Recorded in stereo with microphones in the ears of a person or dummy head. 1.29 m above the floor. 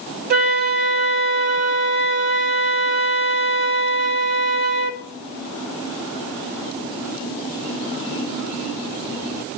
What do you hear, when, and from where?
0.3 s a flute: 45° right (ahead or behind), 1.1 m